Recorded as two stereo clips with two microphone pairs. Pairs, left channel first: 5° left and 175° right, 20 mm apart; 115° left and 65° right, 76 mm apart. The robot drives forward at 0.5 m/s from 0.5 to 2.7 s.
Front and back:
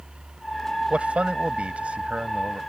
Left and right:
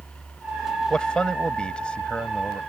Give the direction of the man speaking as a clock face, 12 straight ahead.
6 o'clock.